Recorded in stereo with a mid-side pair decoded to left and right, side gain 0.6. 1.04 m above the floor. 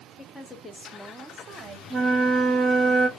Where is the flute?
30° right, 0.6 m.